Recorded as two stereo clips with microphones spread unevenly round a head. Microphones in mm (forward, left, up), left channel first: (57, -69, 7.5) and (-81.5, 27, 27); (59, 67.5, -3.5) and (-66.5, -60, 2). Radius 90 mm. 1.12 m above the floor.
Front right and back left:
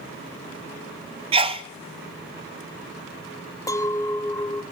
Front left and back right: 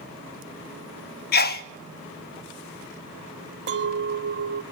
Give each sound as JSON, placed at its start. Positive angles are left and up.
{"t": 1.3, "sound": "a sneeze", "azimuth_deg": 80, "distance_m": 1.1}
{"t": 3.7, "sound": "a clink", "azimuth_deg": -110, "distance_m": 0.8}